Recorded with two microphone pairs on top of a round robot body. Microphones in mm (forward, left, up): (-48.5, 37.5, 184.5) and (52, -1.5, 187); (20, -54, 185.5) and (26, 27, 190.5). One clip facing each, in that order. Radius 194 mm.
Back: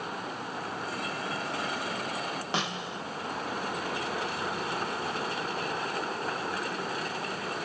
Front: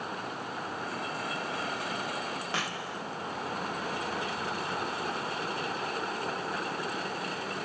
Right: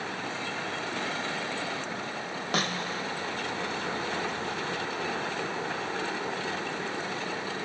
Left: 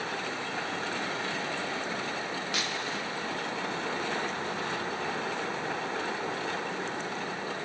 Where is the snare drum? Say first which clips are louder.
Back 2 dB, right 3 dB; 135° right.